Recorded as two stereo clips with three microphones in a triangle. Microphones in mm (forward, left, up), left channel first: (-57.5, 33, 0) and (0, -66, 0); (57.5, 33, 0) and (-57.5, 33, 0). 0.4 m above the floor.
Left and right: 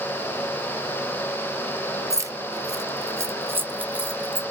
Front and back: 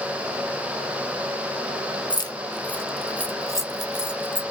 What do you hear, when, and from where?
2.1 s keys jangling: 10° right, 0.6 m; by 4.4 s 140° right, 1.0 m